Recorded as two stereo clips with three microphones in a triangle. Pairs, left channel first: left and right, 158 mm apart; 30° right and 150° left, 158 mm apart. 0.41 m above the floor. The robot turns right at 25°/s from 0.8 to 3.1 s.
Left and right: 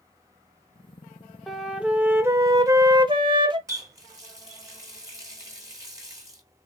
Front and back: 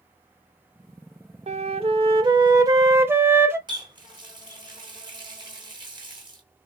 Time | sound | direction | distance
1.5 | a flute | straight behind | 0.7 m
3.7 | a running tap | 155° right | 1.1 m